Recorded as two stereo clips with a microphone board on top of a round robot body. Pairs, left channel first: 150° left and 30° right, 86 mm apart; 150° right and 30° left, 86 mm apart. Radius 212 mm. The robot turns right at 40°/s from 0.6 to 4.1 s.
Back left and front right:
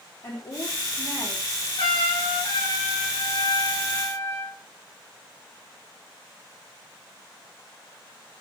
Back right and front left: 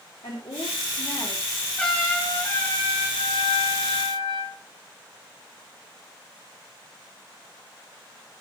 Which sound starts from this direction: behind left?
A trumpet, at 1.8 s.